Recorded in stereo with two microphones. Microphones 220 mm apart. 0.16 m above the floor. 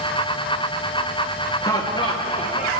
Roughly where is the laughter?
Centre.